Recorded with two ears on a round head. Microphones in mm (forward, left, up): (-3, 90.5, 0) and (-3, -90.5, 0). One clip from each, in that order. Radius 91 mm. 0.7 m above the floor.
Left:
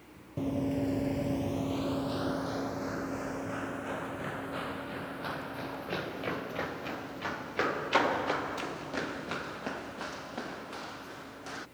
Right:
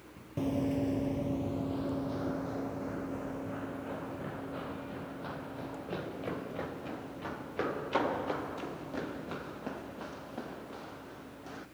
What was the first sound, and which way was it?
Running footsteps, 15° right (ahead or behind).